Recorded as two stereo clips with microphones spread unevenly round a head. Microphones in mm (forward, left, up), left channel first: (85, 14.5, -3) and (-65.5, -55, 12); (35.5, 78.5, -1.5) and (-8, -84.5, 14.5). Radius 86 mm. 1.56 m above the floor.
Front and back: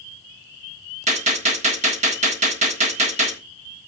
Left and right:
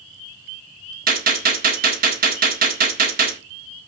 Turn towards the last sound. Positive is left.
turn(degrees=-120)